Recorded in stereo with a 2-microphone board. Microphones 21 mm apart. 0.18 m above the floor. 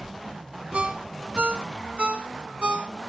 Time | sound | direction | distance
0.7 | a ringtone | 55° right (ahead or behind) | 0.8 m